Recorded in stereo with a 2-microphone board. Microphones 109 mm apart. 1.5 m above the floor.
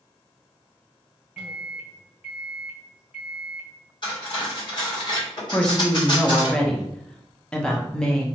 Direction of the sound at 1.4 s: 5° right (ahead or behind).